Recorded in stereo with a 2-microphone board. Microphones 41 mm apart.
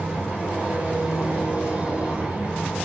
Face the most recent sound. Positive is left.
turn(degrees=-30)  # may be behind; listen again after turning